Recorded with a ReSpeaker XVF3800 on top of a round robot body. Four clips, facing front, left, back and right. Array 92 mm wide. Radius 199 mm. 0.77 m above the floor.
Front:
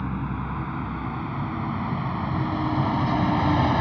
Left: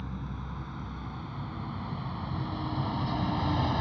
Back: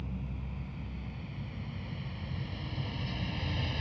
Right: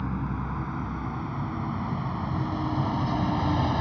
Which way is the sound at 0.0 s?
30° right.